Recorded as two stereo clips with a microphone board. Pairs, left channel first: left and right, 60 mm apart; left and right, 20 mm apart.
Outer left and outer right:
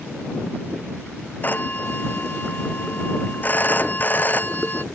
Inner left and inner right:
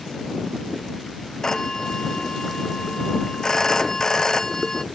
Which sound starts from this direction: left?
A phone ringing, at 1.4 s.